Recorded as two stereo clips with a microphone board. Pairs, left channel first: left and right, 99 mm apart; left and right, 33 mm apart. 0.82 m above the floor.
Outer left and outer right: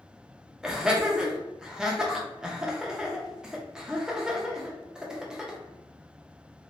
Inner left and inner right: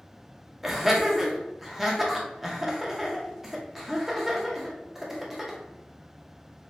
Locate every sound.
0.6 s laughter: 5° right (ahead or behind), 0.6 m